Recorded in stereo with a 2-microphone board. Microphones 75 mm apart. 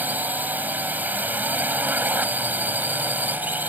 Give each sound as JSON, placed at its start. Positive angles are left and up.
{"t": 0.0, "sound": "a drone", "side_deg": -20}